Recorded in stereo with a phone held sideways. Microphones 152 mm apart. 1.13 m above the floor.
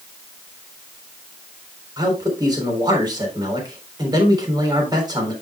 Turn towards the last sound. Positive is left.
turn(degrees=-30)  # may be behind; listen again after turning